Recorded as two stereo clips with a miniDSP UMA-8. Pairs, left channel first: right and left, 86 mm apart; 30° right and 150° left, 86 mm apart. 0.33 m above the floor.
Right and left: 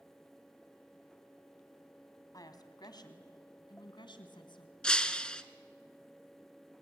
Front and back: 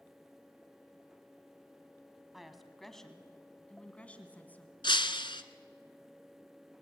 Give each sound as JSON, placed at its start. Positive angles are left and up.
{"t": 2.3, "sound": "a woman speaking", "azimuth_deg": -125, "distance_m": 2.5}
{"t": 4.8, "sound": "breaking glass", "azimuth_deg": -10, "distance_m": 1.1}